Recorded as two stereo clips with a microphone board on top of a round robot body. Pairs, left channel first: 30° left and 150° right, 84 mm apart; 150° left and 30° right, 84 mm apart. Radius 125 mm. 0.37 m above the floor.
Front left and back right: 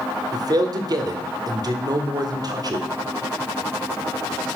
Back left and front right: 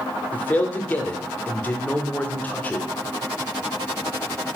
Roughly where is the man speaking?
Behind right.